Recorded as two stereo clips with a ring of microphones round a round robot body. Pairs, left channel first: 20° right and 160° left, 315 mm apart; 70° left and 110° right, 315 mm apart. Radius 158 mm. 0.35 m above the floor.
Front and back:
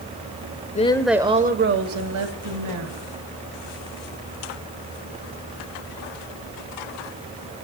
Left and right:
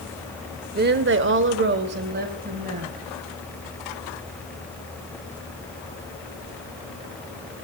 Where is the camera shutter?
I don't hear a camera shutter.